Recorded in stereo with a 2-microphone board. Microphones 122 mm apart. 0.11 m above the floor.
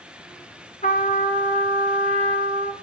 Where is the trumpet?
70° left (ahead or behind), 1.3 m.